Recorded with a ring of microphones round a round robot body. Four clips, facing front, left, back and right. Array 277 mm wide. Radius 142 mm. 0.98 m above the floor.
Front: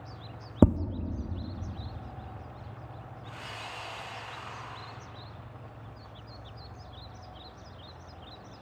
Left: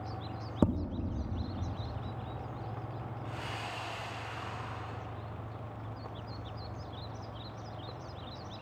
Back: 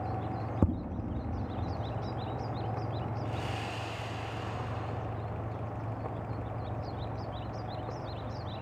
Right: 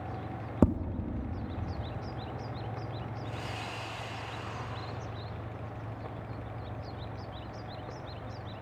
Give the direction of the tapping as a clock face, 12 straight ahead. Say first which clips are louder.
Right 3 dB, front 9 dB; 12 o'clock.